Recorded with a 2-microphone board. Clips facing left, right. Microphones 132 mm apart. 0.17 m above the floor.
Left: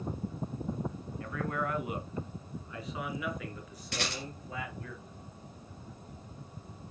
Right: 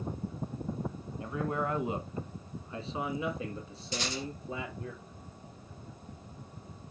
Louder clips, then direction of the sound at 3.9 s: Right 1 dB; 65° left (ahead or behind).